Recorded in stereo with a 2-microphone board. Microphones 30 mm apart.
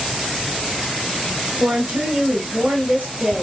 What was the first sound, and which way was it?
A woman speaking, 80° right.